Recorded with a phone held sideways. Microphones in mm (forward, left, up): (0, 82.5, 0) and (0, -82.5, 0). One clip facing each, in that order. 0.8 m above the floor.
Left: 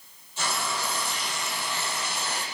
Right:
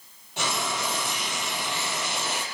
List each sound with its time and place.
0.4 s frying: 70° right (ahead or behind), 5 m